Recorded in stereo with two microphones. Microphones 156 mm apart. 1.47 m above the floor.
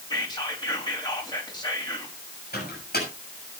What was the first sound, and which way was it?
Whispering, 25° left (ahead or behind).